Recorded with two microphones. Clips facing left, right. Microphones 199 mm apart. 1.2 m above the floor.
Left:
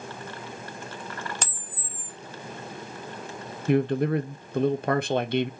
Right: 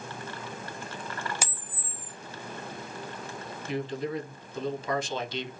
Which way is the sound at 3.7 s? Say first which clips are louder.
Left 9 dB; 60° left (ahead or behind).